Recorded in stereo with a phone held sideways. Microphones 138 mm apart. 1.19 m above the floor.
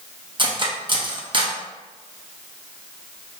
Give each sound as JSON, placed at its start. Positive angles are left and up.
{"t": 0.4, "sound": "cutlery clinking", "side_deg": -35, "distance_m": 0.6}